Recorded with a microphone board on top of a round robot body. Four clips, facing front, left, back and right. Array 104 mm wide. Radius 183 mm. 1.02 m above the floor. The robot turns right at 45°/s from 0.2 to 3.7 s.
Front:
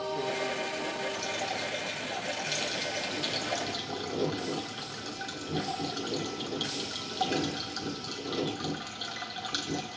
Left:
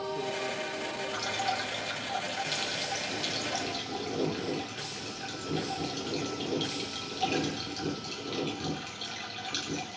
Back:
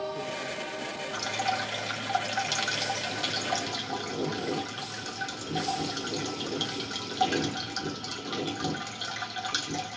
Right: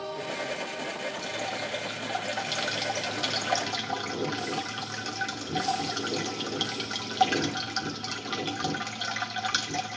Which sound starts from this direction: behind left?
Dripping, at 1.1 s.